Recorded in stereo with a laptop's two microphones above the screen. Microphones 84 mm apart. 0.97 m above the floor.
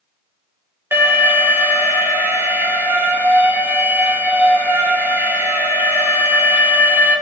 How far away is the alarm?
About 1.1 m.